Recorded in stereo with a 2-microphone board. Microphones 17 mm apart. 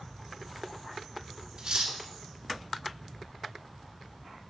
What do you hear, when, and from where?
1.6 s cutlery clinking: 50° right (ahead or behind), 1.3 m